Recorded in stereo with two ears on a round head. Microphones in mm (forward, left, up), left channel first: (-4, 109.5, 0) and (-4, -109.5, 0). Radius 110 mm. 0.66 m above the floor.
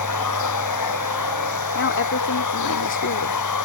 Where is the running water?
85° left.